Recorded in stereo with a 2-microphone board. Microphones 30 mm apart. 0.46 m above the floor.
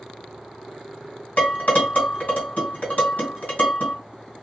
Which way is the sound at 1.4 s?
55° left (ahead or behind).